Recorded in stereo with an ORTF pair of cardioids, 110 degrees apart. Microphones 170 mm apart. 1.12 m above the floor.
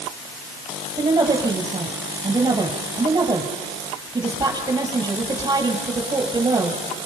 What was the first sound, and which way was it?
A woman speaking, 25° right.